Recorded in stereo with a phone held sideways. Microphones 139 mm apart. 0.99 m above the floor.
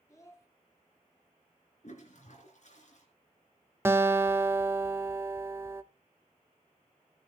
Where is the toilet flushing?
60° left (ahead or behind), 3 m.